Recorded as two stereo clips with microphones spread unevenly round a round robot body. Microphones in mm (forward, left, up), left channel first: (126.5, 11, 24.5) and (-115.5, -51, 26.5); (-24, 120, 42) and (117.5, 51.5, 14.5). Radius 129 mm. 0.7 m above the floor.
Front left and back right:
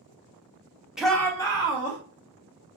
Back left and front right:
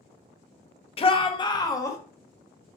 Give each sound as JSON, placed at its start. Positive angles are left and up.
{"t": 1.0, "sound": "a shout", "azimuth_deg": 110, "distance_m": 0.5}